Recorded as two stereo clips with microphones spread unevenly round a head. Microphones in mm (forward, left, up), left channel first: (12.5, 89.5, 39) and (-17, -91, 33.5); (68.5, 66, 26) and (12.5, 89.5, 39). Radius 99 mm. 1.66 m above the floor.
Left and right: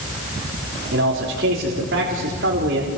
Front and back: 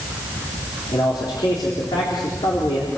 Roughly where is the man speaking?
Ahead right.